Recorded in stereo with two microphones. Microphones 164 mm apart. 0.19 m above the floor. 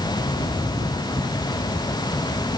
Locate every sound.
Only background noise.